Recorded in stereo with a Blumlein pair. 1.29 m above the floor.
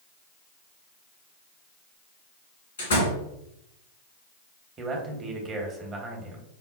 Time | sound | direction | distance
2.8 | a door slam | 65° left | 1.7 m
4.8 | a man speaking | 25° right | 1.0 m